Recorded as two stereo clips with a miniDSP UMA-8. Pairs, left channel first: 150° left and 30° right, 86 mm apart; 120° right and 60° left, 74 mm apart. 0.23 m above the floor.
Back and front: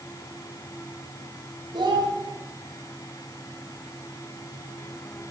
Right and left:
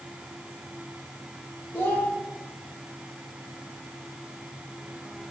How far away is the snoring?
I don't hear snoring.